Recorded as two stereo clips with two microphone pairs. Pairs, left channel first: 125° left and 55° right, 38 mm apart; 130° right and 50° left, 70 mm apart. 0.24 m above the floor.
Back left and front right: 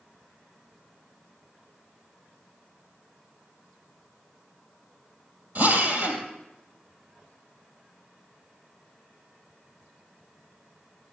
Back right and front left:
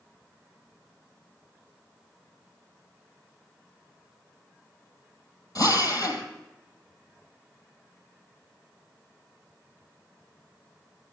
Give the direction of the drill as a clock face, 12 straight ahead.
3 o'clock.